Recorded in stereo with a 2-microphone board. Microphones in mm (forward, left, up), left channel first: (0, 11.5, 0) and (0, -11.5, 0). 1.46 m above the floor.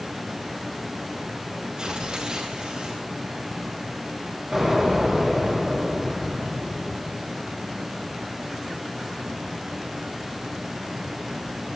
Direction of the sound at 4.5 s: 20° right (ahead or behind).